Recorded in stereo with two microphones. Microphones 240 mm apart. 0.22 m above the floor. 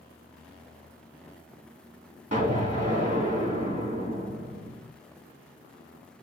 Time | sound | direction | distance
2.3 | an explosion | 35° right (ahead or behind) | 1.8 m